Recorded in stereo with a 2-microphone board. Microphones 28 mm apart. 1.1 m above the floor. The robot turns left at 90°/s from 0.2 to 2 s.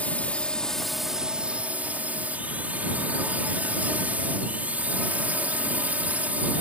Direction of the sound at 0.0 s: 65° left.